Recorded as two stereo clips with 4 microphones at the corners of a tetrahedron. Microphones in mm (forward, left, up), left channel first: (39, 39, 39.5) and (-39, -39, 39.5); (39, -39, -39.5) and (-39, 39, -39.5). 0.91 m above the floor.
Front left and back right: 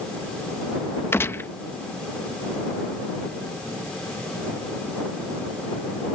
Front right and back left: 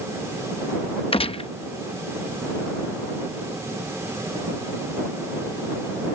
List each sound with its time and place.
1.1 s a gunshot: 25° right